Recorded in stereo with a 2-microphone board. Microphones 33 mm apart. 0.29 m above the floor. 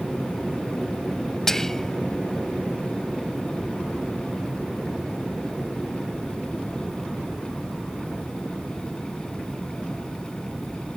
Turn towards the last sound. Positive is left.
turn(degrees=15)  # may be behind; listen again after turning